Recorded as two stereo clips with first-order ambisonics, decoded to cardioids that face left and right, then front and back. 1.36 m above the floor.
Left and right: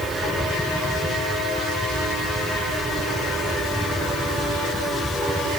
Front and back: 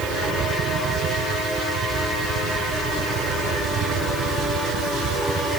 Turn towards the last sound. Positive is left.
No sound to turn to.